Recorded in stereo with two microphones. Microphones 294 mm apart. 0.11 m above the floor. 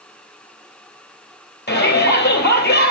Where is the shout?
35° left (ahead or behind), 2.5 m.